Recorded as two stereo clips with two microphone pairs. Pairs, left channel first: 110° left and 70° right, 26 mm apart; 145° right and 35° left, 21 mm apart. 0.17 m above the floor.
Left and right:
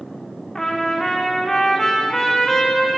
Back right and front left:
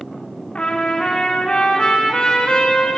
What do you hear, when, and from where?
0.6 s a trumpet: 175° right, 4 m